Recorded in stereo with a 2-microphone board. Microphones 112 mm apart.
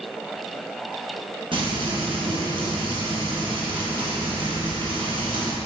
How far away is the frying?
About 1.8 m.